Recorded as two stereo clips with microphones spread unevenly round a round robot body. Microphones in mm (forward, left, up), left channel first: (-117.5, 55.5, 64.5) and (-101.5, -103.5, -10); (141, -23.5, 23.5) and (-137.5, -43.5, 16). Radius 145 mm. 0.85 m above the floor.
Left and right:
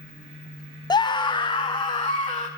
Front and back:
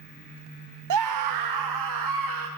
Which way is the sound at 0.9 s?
175° left.